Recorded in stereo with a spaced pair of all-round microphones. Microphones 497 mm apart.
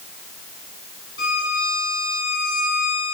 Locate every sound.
1.2 s a violin: 85° left, 7 m